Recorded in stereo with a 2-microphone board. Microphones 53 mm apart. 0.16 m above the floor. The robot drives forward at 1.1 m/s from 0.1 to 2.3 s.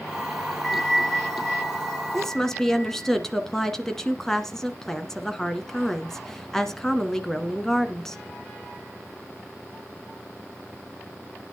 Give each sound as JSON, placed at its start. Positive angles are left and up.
{"t": 0.6, "sound": "a bell", "side_deg": 10, "distance_m": 2.5}
{"t": 2.1, "sound": "a woman speaking", "side_deg": 10, "distance_m": 1.3}